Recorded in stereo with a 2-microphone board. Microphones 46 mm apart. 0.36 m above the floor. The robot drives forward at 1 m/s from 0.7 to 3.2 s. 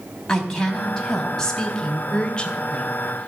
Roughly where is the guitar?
I don't hear a guitar.